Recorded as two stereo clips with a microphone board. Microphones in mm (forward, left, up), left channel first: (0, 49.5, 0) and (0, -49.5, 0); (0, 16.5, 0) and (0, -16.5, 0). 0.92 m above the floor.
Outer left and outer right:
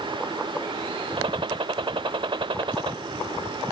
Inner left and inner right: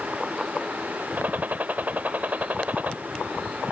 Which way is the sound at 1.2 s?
60° right (ahead or behind).